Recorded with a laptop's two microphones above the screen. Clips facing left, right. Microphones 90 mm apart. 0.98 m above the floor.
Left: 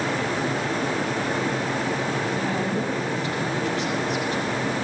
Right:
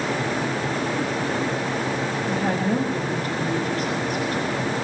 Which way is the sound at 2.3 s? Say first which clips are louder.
Right 3 dB; 40° right (ahead or behind).